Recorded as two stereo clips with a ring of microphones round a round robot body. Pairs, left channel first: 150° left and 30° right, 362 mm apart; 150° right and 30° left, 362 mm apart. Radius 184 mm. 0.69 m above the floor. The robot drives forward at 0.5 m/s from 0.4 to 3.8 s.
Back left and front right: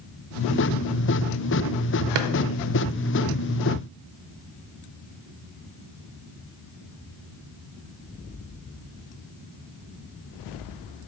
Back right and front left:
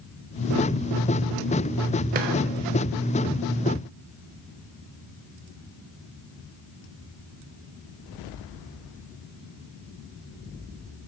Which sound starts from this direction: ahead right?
A drawer, at 2.1 s.